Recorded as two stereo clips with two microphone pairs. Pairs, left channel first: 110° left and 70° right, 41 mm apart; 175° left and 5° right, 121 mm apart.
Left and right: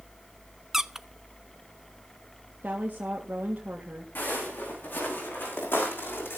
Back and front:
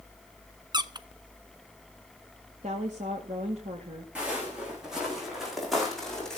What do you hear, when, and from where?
0.7 s a squeak: 5° right, 0.7 m
2.6 s a woman speaking: 25° right, 2 m
4.2 s footsteps: 75° left, 7 m; by 6.4 s 90° left, 5.5 m